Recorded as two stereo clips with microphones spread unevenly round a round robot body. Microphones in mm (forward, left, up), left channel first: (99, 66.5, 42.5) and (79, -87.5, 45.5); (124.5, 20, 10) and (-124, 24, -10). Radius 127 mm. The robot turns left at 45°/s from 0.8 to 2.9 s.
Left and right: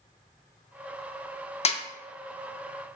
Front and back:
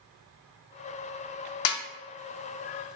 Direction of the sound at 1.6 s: 30° left.